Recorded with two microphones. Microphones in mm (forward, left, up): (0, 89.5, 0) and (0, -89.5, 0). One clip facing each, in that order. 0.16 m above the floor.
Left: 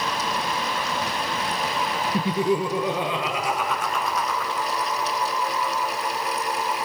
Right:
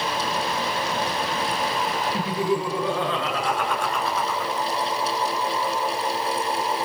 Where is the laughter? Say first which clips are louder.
Left 3 dB; 30° left (ahead or behind), 3.5 m; by 4.5 s 10° right (ahead or behind), 3 m.